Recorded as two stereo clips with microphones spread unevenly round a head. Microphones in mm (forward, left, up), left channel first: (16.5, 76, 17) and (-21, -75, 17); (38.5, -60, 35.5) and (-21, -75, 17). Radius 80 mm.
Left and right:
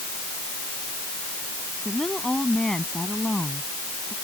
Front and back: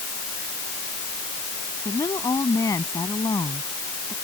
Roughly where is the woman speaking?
Ahead.